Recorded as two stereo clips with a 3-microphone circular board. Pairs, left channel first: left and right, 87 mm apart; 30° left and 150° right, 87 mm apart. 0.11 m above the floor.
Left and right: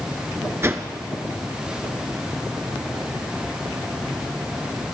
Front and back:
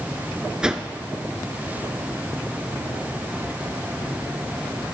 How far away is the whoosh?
About 0.9 m.